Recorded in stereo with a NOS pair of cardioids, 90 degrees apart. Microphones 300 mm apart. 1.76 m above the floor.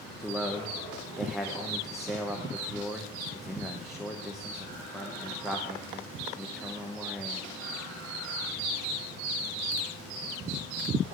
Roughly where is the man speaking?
Ahead.